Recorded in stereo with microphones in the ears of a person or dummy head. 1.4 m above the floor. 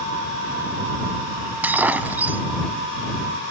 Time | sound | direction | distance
1.6 | breaking glass | 10° right (ahead or behind) | ?